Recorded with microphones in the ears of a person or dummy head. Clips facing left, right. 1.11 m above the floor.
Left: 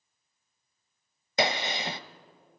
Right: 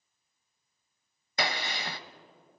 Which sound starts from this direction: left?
A gunshot, at 1.4 s.